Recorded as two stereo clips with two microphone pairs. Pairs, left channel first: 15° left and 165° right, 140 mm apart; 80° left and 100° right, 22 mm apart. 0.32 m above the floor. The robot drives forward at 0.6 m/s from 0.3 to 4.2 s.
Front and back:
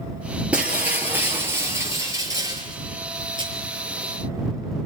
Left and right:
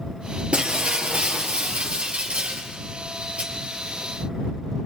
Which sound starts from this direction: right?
Breaking glass, at 0.5 s.